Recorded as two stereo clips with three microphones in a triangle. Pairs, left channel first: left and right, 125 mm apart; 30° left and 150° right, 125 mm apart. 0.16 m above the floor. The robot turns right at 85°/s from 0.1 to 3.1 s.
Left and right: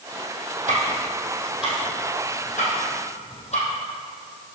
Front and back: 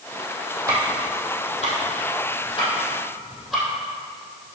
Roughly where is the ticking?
Right.